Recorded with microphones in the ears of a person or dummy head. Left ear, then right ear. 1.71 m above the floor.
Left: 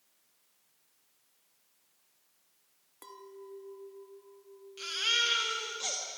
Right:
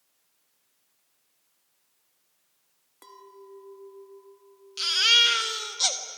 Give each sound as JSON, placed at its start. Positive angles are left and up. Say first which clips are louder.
{"t": 3.0, "sound": "a clink", "louder": "right 1 dB", "side_deg": 0, "distance_m": 1.5}
{"t": 4.8, "sound": "a baby crying", "louder": "right 10 dB", "side_deg": -45, "distance_m": 1.7}